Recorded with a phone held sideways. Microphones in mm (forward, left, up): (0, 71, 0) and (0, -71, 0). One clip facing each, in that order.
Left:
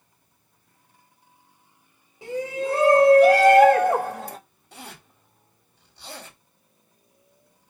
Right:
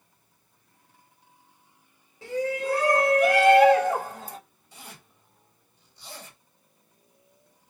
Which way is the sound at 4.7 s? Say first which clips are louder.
Left 5 dB; 70° left (ahead or behind).